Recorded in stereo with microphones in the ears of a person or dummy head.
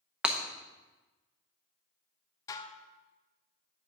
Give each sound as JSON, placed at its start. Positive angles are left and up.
{"t": 0.2, "sound": "breaking glass", "side_deg": -5, "distance_m": 0.6}
{"t": 2.5, "sound": "dishes clattering", "side_deg": 20, "distance_m": 0.6}